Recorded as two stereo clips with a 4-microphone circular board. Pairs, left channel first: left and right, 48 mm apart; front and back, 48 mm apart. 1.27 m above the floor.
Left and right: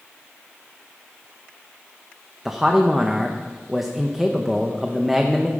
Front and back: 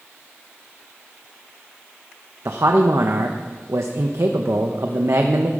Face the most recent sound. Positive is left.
turn(degrees=-170)